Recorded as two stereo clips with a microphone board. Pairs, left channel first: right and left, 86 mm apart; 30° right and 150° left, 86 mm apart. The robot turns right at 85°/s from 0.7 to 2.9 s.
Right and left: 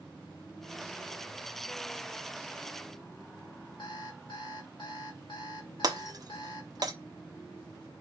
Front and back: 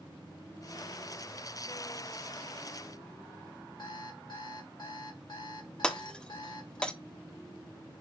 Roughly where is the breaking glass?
Ahead left.